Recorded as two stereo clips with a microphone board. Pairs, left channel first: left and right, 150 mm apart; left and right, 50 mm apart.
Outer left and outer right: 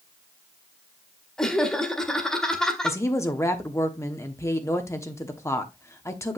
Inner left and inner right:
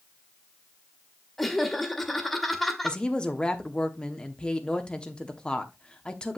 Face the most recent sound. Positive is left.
turn(degrees=20)  # may be behind; listen again after turning